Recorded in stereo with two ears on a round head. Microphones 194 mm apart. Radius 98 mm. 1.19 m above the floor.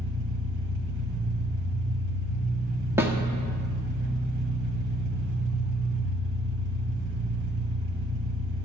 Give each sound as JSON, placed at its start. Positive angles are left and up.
{"t": 0.0, "sound": "an engine running", "side_deg": -75, "distance_m": 2.5}
{"t": 3.0, "sound": "a snare drum", "side_deg": -10, "distance_m": 1.6}